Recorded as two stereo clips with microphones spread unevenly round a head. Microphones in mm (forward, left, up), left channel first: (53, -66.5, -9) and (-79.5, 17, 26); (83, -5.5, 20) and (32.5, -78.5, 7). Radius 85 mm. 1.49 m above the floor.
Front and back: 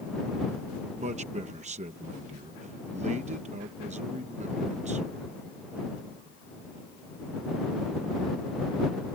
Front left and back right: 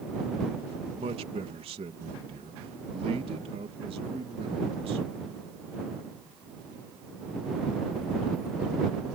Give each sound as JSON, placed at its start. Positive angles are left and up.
{"t": 1.0, "sound": "a man speaking", "azimuth_deg": -165}